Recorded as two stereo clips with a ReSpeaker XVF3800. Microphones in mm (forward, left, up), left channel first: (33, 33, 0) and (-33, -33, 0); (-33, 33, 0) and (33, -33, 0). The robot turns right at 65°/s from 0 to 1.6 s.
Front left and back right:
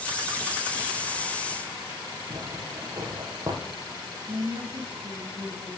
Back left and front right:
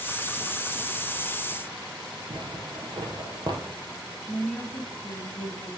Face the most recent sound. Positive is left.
turn(degrees=-135)